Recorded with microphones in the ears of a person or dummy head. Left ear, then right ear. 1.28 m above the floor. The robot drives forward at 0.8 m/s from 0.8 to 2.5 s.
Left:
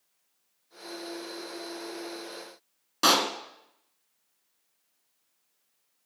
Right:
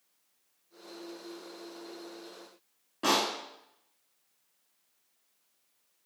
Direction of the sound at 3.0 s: 60° left (ahead or behind).